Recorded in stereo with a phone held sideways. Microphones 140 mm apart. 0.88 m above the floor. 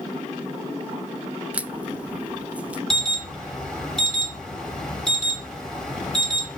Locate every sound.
1.5 s a crack: 10° right (ahead or behind), 0.6 m
2.9 s an alarm: 5° left (ahead or behind), 4 m